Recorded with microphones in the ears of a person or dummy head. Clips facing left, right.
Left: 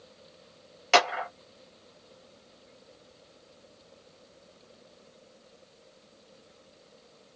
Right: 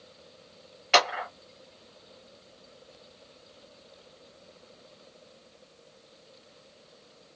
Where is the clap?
55° left (ahead or behind), 1.5 m.